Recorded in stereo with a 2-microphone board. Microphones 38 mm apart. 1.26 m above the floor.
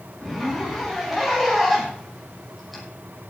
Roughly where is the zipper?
Centre.